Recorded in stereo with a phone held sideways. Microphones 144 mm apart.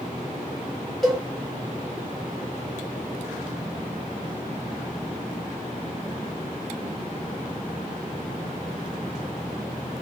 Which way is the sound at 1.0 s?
Centre (ahead or behind).